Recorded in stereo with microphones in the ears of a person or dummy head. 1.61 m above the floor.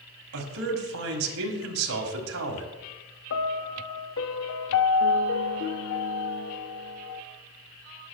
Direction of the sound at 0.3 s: 85° right.